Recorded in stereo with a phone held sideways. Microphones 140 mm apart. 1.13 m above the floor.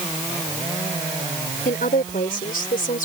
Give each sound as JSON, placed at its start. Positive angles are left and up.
{"t": 1.6, "sound": "a woman speaking", "side_deg": 85}